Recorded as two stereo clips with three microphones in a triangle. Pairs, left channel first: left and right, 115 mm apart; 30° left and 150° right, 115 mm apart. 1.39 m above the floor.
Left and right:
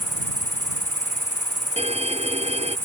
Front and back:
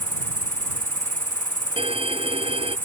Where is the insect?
130° right.